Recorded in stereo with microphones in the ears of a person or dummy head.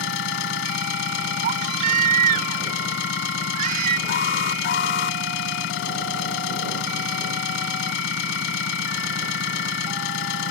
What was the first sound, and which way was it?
An engine running, 75° left (ahead or behind).